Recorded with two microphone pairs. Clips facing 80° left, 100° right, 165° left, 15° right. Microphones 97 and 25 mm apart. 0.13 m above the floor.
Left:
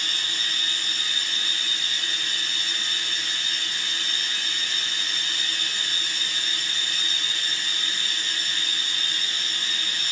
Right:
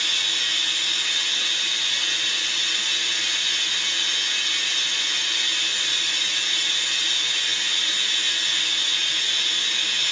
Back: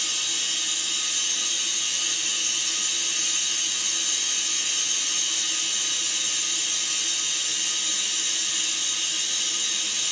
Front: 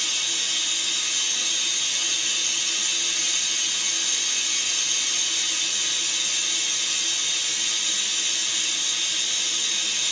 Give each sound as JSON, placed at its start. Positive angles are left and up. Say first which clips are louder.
{"t": 0.0, "sound": "running water", "louder": "right 2 dB, front 2 dB", "azimuth_deg": -90, "distance_m": 3.5}